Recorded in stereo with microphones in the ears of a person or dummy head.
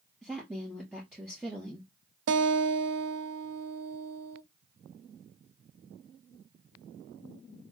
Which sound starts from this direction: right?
A guitar, at 2.3 s.